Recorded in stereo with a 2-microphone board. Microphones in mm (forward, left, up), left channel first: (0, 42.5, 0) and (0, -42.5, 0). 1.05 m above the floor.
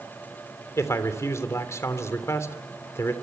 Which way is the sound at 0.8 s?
35° left (ahead or behind).